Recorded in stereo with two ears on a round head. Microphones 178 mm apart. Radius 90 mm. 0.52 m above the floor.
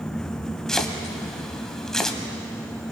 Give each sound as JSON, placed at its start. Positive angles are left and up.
{"t": 0.7, "sound": "chopping", "side_deg": 0, "distance_m": 1.5}